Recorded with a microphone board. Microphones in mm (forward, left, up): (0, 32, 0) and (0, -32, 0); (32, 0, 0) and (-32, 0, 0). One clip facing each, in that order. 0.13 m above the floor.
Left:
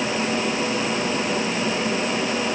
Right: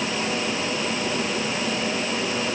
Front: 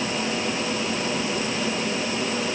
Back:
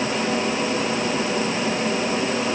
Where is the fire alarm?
I don't hear a fire alarm.